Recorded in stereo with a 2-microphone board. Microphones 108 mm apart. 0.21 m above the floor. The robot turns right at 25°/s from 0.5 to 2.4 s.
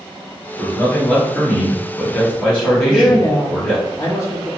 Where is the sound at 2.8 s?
30° left (ahead or behind), 1.1 m.